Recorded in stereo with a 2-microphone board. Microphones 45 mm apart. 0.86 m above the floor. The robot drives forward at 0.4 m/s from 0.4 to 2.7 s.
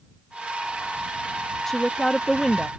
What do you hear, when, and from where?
1.7 s a woman speaking: 5° left (ahead or behind); by 2.7 s 10° left (ahead or behind)